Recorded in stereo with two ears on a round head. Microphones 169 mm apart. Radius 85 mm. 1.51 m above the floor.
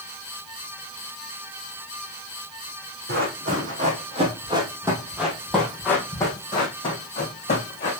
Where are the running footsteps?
55° right (ahead or behind), 3.5 m; by 7.9 s 40° left (ahead or behind), 5 m.